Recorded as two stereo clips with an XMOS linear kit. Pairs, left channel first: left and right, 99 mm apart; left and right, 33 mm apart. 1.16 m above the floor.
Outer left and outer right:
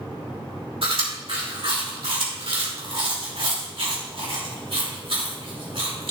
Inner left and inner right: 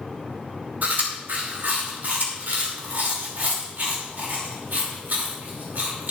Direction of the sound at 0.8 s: 65° right (ahead or behind).